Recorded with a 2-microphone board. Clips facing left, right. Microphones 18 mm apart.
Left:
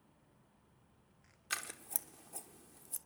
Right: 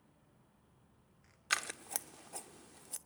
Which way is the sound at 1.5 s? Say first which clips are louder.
Right 6 dB; 30° right (ahead or behind).